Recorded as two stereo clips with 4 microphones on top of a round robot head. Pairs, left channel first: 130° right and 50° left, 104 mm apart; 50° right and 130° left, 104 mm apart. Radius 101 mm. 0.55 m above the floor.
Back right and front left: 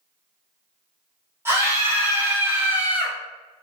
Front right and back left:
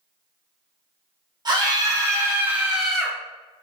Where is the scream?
105° left, 1.7 m; by 3.2 s 5° left, 1.2 m.